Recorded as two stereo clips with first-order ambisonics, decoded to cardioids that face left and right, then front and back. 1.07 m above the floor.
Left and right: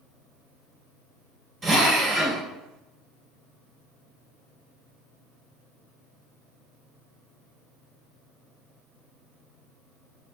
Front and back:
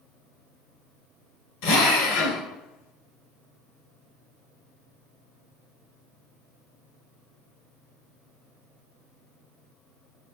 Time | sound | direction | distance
1.6 | a drill | 10° right | 2.5 m